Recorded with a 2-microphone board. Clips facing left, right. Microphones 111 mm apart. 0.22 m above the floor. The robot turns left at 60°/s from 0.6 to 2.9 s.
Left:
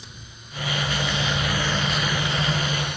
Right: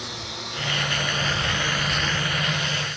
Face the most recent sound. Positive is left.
turn(degrees=60)  # may be behind; listen again after turning